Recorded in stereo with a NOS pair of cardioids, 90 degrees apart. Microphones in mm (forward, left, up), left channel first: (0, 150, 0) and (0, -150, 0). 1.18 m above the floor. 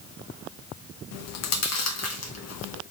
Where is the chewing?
60° left, 0.8 m.